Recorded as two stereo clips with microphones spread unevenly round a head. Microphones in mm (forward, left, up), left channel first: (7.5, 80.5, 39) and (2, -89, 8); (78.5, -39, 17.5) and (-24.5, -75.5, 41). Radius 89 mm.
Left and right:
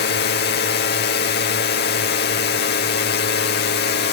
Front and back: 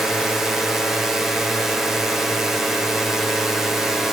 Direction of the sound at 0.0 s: 105° left.